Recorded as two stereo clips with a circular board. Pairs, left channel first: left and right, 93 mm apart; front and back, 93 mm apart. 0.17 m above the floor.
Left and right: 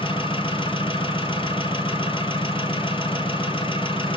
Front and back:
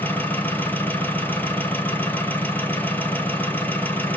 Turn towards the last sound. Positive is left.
turn(degrees=70)